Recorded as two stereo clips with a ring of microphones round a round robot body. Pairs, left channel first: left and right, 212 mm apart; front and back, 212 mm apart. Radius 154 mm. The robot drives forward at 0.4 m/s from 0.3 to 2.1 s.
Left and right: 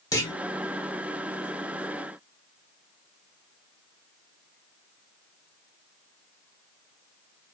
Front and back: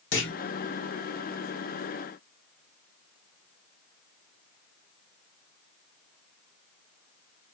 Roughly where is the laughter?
No laughter in this recording.